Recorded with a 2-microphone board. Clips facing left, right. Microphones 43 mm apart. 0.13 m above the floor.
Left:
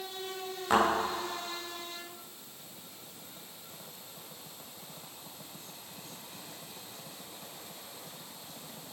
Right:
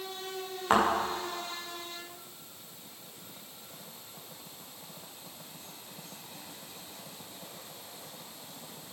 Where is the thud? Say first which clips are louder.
Right 1 dB; 30° right (ahead or behind), 5.5 m.